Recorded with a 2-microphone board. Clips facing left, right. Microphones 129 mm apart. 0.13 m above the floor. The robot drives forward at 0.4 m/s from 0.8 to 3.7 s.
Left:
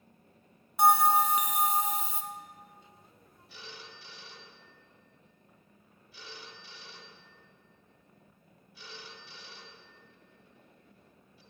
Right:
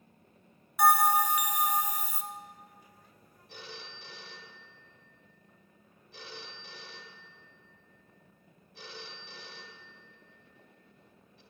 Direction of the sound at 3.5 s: 50° right (ahead or behind).